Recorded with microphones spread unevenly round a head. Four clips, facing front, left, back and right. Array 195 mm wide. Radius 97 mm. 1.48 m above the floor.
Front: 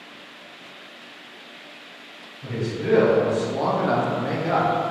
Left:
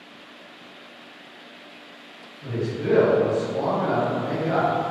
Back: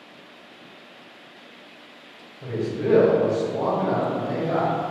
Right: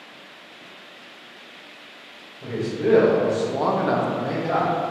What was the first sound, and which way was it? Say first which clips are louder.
A man speaking: right 3 dB, back 2 dB; 140° right.